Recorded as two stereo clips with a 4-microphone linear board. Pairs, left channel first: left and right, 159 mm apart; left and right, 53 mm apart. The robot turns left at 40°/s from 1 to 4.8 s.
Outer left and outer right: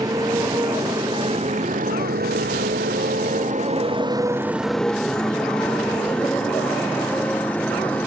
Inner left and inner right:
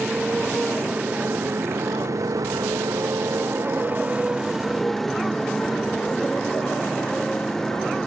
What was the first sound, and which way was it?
A motorcycle, 25° right (ahead or behind).